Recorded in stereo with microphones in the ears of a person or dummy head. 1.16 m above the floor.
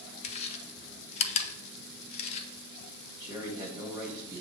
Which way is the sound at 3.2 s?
20° right (ahead or behind).